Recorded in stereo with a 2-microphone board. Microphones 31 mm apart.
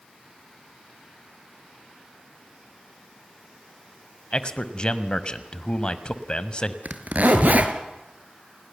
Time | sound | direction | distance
4.3 | a man speaking | 30° left (ahead or behind) | 1.4 m
6.8 | a zipper | 65° right (ahead or behind) | 2 m